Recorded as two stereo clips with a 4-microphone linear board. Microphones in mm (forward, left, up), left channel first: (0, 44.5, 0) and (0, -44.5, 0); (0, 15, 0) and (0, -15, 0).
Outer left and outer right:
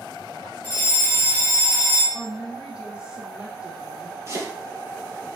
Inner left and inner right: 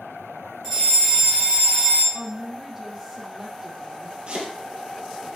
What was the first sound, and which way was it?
A fire alarm, 20° left (ahead or behind).